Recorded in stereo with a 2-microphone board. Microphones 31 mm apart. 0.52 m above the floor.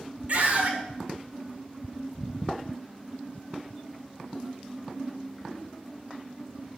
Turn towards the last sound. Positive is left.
turn(degrees=-50)  # may be behind; listen again after turning